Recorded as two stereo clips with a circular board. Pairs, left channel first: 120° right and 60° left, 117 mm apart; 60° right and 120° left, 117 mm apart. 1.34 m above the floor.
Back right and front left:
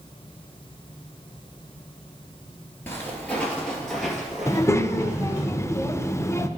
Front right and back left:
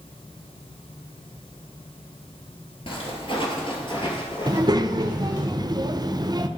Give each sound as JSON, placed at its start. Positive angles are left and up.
{"t": 2.9, "sound": "footsteps", "azimuth_deg": -55, "distance_m": 1.8}
{"t": 4.5, "sound": "a child speaking", "azimuth_deg": 175, "distance_m": 0.5}